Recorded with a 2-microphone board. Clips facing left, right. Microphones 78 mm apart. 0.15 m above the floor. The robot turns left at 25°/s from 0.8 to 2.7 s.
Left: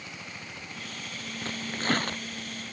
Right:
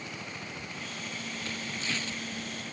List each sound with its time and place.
1.4 s tearing paper: 40° left (ahead or behind); by 2.2 s 60° left (ahead or behind)